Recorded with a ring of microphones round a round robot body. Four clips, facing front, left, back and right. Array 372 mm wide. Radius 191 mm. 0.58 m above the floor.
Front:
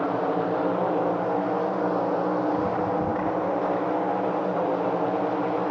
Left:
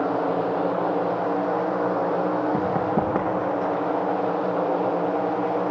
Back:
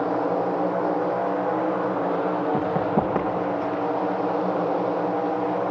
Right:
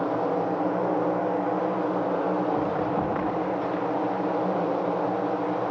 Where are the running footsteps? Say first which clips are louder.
Left 3 dB, back 2 dB; 130° left, 7 m; by 3.8 s 140° left, 6.5 m.